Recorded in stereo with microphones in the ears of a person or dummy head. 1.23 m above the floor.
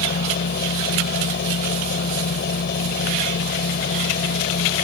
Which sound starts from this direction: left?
A machine running, at 0.0 s.